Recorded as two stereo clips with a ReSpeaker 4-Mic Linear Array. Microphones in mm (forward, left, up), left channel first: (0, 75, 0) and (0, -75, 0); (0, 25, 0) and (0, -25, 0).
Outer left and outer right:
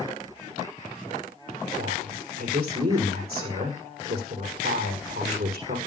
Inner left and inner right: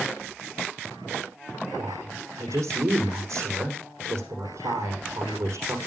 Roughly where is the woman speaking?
Right.